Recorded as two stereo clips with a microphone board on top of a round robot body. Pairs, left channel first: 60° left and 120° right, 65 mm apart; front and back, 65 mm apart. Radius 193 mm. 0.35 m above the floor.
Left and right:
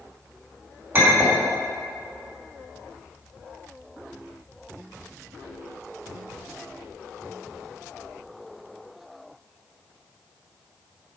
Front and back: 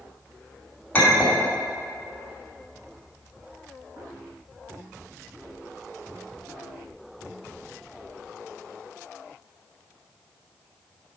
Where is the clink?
70° right, 2.5 m.